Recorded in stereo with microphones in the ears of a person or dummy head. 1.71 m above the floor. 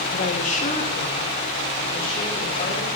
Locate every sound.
0.1 s a woman speaking: 40° left (ahead or behind), 0.7 m